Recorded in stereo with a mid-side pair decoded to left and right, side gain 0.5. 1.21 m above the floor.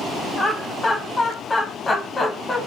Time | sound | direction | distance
0.4 | laughter | 25° left | 0.9 m